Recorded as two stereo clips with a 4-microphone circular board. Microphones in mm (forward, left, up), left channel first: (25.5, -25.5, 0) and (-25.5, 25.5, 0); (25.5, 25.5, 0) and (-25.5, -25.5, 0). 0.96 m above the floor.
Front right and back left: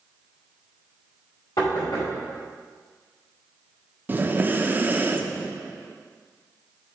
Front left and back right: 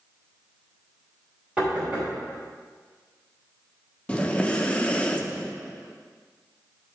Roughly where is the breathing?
Left.